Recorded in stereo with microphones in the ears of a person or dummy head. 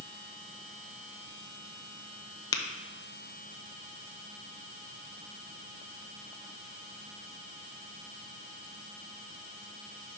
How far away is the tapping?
About 0.5 m.